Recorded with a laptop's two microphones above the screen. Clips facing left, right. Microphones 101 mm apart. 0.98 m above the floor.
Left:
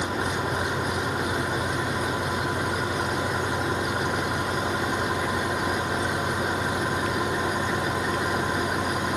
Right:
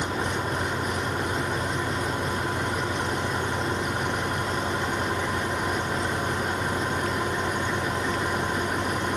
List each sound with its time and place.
0.0 s an engine running: 5° left (ahead or behind)